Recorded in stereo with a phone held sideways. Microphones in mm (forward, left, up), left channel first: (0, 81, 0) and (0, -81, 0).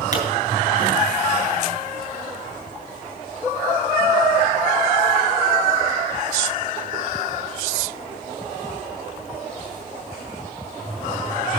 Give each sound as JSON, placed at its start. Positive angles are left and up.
{"t": 0.1, "sound": "a pop", "side_deg": 60, "distance_m": 3.0}